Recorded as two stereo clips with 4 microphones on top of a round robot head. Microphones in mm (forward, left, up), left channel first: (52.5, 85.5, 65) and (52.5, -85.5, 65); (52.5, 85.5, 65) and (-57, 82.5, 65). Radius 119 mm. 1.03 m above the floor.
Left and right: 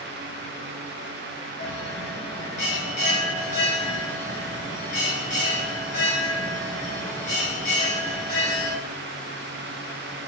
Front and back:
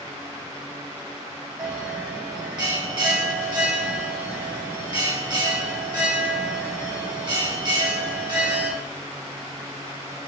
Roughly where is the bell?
Behind left.